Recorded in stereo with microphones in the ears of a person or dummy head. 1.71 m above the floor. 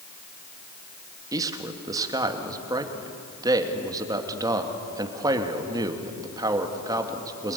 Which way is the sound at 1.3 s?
15° right (ahead or behind).